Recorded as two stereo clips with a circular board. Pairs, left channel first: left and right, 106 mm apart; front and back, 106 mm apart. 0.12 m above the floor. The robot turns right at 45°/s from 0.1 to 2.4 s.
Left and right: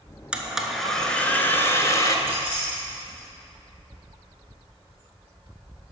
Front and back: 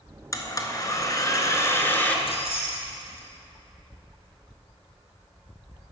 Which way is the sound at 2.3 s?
20° right.